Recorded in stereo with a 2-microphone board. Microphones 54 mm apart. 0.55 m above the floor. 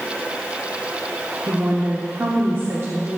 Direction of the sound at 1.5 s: 45° right (ahead or behind).